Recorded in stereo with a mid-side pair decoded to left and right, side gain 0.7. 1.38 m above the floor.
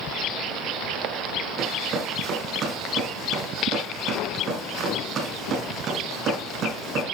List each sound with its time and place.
1.6 s running footsteps: 40° right, 4.5 m